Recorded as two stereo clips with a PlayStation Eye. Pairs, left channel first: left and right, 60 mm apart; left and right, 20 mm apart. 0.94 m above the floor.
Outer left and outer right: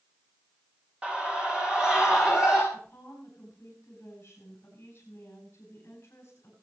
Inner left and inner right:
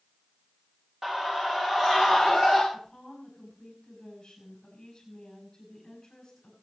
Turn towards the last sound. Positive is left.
turn(degrees=40)  # may be behind; listen again after turning